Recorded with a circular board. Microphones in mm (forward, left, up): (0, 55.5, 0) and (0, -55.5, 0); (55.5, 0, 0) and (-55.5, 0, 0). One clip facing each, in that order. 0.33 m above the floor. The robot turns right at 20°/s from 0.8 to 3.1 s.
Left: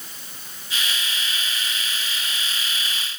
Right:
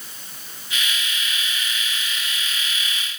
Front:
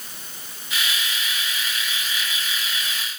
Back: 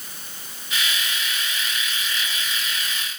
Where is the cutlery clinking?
No cutlery clinking in this recording.